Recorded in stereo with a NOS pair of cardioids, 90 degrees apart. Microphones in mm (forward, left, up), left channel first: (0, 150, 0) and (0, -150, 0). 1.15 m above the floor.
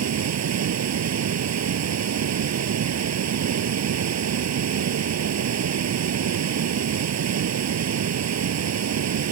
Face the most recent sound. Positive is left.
turn(degrees=-60)